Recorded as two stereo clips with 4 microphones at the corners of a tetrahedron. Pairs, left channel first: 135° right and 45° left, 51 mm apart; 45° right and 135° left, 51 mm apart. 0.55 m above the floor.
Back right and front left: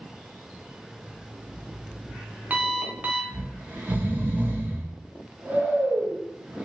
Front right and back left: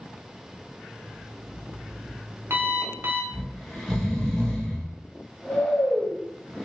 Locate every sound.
0.9 s an alarm clock: 105° left, 0.6 m
3.3 s snoring: 30° left, 0.7 m